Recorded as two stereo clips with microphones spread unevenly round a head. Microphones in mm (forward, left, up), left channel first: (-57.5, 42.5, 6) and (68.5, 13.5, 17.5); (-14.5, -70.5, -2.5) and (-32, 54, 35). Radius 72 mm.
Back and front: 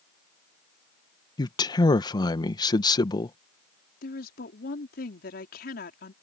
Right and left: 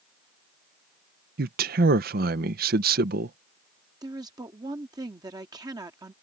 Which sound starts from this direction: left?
A man speaking, at 1.4 s.